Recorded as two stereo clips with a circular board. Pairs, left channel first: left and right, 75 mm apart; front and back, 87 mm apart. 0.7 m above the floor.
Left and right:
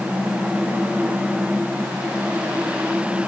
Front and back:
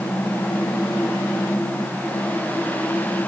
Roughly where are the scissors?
No scissors in this recording.